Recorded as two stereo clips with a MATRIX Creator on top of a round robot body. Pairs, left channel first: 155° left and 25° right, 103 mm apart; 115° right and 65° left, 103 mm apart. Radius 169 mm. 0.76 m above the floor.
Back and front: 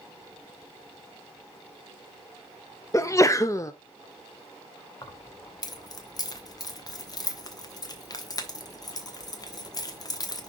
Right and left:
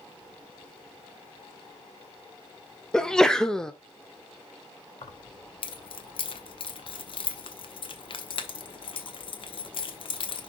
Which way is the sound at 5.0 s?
150° right.